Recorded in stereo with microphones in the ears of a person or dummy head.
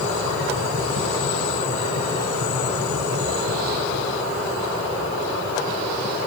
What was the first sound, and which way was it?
Only background noise.